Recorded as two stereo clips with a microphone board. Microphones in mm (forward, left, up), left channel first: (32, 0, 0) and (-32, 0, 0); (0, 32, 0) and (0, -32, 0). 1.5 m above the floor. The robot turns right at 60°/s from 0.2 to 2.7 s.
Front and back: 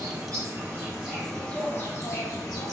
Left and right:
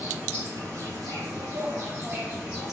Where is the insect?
150° right, 1.2 m; by 2.7 s straight ahead, 1.2 m.